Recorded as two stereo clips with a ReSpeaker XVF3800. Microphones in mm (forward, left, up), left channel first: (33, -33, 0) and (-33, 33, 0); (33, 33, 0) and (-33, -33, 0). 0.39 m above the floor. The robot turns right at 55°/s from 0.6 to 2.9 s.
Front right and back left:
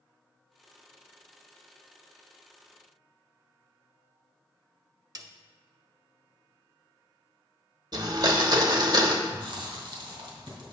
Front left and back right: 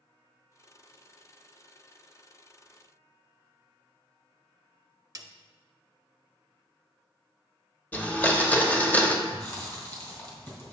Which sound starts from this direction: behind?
A snare drum, at 5.2 s.